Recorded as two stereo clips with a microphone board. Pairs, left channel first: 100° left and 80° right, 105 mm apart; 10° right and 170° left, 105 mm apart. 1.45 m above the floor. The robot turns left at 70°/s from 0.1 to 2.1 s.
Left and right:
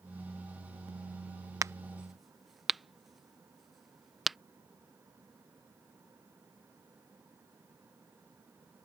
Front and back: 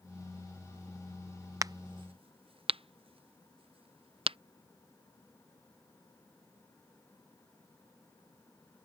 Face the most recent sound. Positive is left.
turn(degrees=-170)